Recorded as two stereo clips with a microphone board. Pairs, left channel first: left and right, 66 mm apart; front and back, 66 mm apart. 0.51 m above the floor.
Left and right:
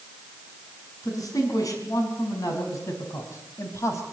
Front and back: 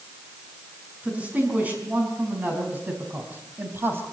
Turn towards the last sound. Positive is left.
turn(degrees=130)